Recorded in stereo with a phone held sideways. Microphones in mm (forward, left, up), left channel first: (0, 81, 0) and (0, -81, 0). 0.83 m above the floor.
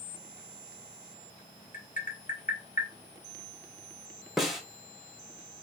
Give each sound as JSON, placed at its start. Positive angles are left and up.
{"t": 1.7, "sound": "tapping", "side_deg": 50, "distance_m": 1.4}
{"t": 4.4, "sound": "a snare drum", "side_deg": 0, "distance_m": 0.9}